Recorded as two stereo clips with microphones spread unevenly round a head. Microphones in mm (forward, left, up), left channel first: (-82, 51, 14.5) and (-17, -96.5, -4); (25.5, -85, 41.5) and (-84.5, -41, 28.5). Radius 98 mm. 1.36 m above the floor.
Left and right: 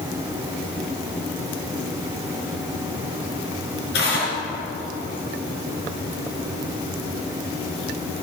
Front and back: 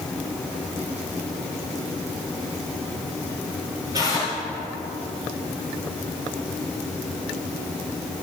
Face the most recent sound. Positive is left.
turn(degrees=85)